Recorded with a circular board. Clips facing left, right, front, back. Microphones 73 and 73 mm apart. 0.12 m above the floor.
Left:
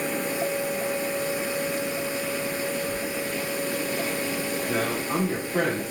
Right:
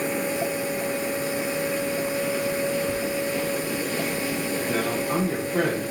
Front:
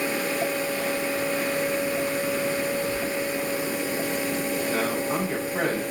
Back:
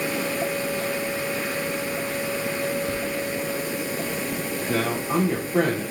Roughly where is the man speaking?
Behind.